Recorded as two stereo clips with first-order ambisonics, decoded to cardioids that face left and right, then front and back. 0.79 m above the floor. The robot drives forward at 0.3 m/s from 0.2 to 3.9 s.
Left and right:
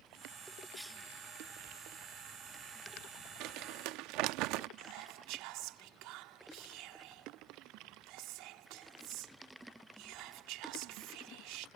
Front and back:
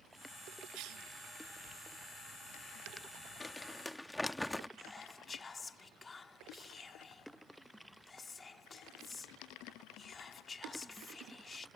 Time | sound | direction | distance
0.7 | a cough | 175° left | ?
3.4 | crumpling | 75° right | ?
4.8 | whispering | 75° right | ?